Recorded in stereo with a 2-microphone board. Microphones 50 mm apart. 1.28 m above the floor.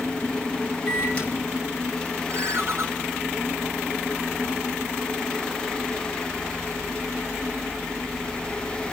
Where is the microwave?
25° left (ahead or behind), 5.5 m.